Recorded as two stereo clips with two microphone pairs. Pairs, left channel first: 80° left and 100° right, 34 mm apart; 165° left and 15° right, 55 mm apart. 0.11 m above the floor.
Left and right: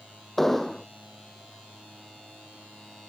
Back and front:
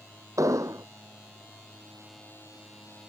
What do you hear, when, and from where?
0.4 s an explosion: straight ahead